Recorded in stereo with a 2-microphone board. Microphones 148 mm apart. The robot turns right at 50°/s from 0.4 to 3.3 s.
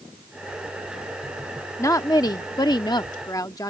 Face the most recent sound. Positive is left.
turn(degrees=25)  # may be behind; listen again after turning